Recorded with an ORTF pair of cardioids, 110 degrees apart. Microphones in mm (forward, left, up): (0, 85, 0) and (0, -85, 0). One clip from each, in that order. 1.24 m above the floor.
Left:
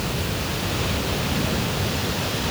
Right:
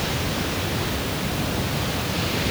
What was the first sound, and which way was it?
Only background noise.